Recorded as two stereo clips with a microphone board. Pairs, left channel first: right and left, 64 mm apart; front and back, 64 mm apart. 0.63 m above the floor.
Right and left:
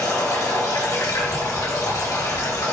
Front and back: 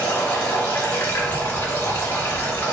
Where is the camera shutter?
170° right, 0.7 m.